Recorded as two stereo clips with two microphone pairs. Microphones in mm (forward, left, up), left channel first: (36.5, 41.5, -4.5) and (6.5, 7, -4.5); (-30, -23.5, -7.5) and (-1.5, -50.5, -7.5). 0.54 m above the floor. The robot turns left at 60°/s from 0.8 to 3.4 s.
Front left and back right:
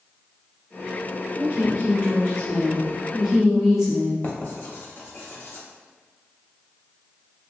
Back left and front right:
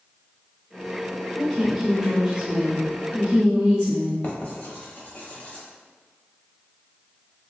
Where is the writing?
90° left, 0.6 m.